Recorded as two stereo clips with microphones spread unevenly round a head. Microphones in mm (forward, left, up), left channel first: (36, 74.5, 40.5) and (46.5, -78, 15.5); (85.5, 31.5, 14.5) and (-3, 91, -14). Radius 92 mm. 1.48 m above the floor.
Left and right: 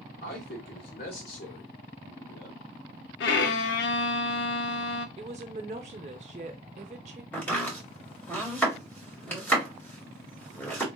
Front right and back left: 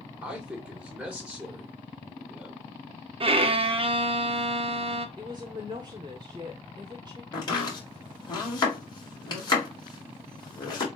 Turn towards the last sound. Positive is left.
turn(degrees=15)